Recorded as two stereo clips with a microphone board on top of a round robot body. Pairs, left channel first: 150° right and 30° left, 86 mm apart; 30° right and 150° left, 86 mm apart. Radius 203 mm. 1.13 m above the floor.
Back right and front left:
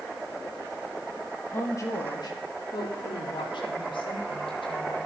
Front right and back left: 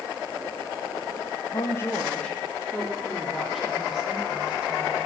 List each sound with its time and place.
1.5 s a woman speaking: 85° right, 1.5 m; by 5.0 s 135° right, 5.5 m